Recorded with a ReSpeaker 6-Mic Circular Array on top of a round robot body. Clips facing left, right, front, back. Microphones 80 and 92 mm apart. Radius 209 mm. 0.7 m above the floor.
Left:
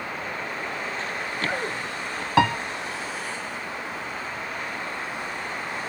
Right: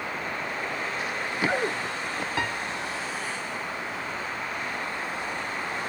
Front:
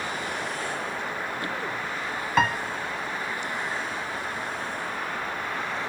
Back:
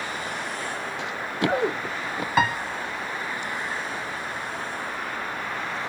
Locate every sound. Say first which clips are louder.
1.0 s running footsteps: right 3 dB, back 4 dB; 170° right; by 2.3 s 165° right
2.4 s a piano: left 12 dB, back 1 dB; 95° left